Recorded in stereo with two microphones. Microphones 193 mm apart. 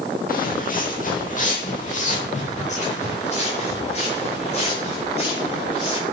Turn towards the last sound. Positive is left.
turn(degrees=30)  # may be behind; listen again after turning